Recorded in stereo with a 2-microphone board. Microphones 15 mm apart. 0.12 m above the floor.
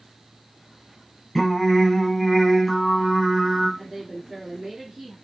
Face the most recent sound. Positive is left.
turn(degrees=-30)  # may be behind; listen again after turning